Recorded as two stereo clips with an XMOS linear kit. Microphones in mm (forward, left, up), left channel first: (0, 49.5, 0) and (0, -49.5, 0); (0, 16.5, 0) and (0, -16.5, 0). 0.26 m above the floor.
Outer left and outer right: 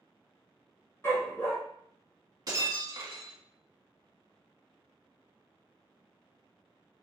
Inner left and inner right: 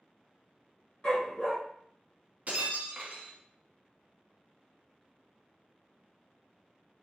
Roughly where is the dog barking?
Left.